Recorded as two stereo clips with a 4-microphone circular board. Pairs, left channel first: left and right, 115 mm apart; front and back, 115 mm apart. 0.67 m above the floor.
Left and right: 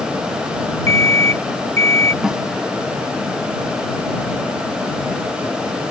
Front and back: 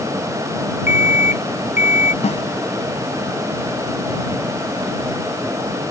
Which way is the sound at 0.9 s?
110° right.